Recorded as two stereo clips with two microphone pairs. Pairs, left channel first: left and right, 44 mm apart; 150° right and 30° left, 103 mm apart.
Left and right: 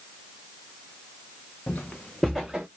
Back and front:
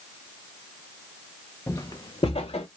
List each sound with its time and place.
1.7 s footsteps: 140° left, 0.6 m; by 2.7 s 160° right, 0.6 m